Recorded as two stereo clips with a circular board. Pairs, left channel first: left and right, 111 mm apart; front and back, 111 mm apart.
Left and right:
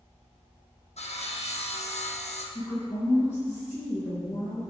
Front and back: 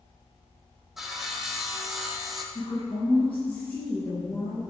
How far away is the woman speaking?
About 4 m.